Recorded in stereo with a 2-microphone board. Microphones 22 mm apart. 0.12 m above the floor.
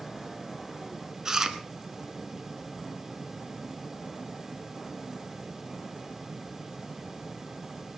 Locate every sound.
1.2 s chewing: 25° right (ahead or behind), 1.4 m